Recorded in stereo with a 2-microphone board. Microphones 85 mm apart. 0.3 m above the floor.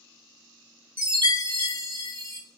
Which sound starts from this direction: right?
A chime, at 1.0 s.